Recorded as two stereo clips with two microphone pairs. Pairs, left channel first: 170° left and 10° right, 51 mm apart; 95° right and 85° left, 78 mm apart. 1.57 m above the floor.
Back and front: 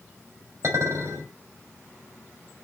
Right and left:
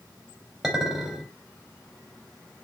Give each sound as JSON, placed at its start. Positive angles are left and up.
{"t": 0.6, "sound": "a clink", "azimuth_deg": -5, "distance_m": 3.5}